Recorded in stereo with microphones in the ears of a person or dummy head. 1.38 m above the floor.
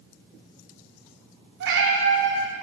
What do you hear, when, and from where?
1.6 s a cat meowing: 60° right (ahead or behind), 1.6 m